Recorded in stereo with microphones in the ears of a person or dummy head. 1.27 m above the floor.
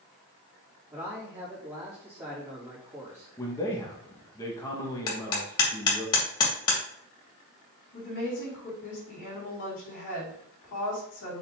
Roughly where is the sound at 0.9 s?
Centre.